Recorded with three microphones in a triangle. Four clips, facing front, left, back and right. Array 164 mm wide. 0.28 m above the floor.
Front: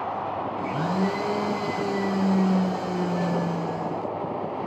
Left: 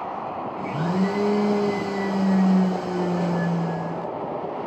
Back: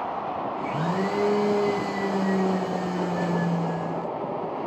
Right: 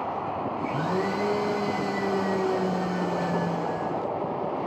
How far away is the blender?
About 2.5 m.